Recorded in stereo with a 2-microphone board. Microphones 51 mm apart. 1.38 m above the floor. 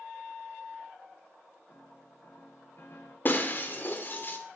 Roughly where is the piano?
Left.